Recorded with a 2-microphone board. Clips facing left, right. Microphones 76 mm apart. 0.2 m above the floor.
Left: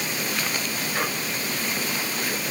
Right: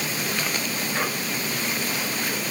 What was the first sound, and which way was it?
Only background noise.